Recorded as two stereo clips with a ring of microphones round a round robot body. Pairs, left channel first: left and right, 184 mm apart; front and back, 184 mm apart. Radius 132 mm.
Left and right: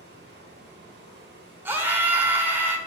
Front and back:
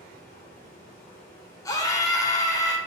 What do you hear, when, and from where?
0.0 s running water: 75° right, 2 m
1.6 s a scream: 30° right, 0.8 m